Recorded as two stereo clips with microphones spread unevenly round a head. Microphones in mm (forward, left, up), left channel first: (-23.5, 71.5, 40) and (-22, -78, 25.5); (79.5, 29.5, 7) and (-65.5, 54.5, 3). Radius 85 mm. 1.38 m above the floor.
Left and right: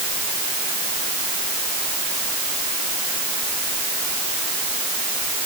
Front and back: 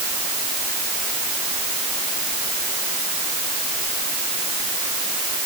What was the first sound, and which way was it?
Only background noise.